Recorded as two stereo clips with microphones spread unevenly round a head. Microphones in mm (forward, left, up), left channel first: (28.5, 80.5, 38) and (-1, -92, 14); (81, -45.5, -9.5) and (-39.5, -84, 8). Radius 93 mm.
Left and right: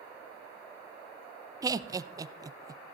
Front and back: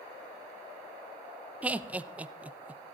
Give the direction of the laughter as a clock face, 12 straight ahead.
3 o'clock.